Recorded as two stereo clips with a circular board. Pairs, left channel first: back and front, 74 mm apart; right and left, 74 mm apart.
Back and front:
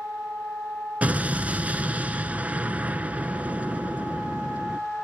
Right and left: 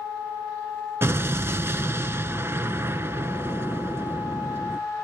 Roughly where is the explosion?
Ahead left.